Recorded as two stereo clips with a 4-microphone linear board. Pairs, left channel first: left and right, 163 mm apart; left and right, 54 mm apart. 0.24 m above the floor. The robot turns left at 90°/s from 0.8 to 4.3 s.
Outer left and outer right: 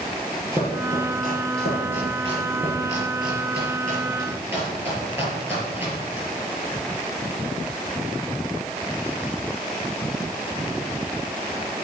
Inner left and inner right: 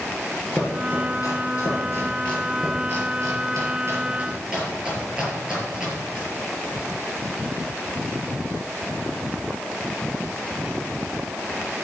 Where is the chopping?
25° left (ahead or behind), 5.5 m; by 6.3 s 20° right (ahead or behind), 5.5 m.